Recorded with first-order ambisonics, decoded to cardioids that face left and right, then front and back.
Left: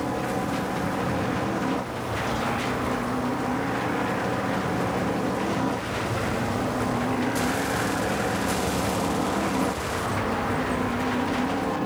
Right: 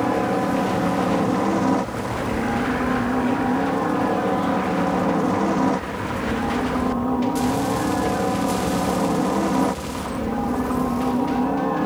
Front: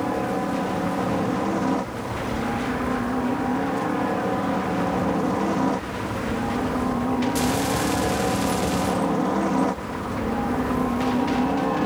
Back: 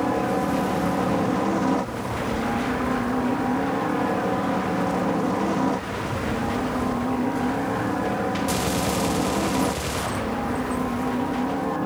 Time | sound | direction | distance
0.0 | a helicopter | 100° right | ?